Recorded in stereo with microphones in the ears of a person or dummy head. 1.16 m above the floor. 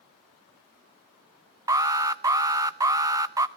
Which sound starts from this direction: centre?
An alarm, at 1.7 s.